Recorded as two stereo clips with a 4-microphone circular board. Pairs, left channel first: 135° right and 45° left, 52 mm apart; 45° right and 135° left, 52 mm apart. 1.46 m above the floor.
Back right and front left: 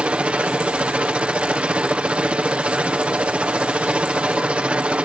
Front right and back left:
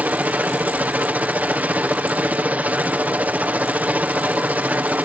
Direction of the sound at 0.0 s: 100° left.